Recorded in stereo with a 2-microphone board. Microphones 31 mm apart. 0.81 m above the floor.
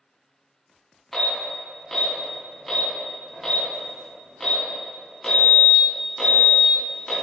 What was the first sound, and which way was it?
An alarm, 5° left (ahead or behind).